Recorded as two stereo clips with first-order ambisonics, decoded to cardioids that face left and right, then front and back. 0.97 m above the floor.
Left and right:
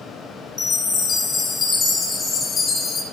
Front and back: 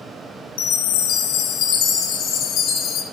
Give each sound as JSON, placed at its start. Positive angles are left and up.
{"t": 0.6, "sound": "a chime", "azimuth_deg": 25, "distance_m": 1.0}